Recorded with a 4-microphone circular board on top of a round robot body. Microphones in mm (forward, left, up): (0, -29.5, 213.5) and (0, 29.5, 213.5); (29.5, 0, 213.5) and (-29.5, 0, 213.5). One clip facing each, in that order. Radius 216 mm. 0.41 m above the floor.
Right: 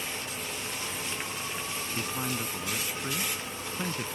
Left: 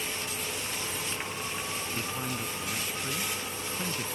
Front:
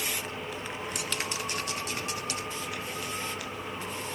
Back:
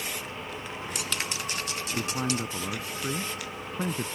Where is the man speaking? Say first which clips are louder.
Right 4 dB, back 5 dB; 165° right.